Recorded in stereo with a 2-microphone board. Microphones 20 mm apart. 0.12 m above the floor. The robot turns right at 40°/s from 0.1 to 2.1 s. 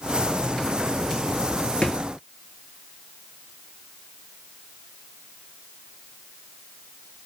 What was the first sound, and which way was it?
A drawer, 50° left (ahead or behind).